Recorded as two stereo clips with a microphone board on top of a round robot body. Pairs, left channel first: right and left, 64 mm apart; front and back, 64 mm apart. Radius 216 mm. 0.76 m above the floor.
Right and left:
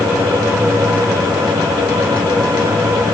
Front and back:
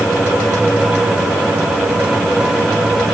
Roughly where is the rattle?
I don't hear a rattle.